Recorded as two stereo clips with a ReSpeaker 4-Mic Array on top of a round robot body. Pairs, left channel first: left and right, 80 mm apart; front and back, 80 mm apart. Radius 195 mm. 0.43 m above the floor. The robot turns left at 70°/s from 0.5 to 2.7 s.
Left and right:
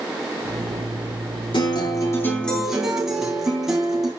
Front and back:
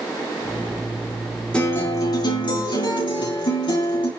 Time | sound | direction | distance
1.5 | a guitar | 75° left | 6 m